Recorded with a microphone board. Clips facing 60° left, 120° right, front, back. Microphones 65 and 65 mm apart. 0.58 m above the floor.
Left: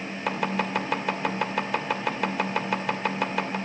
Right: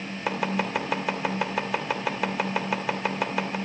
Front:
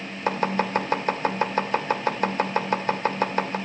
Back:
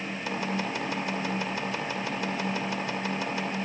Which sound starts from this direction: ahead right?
Chopping, at 0.3 s.